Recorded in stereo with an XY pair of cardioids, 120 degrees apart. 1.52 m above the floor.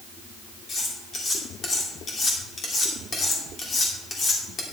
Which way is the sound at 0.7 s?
40° left.